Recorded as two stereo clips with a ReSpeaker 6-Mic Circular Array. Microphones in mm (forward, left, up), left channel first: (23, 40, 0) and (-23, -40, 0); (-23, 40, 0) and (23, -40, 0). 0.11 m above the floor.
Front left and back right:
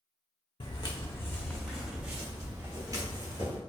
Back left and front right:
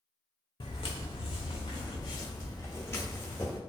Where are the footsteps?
95° left, 0.6 m; by 3.6 s 170° right, 1.3 m.